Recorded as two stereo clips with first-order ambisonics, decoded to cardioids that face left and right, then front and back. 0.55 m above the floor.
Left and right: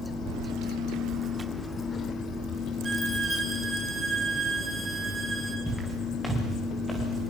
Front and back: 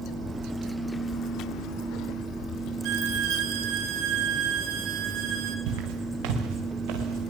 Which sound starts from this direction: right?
Keys jangling, at 0.3 s.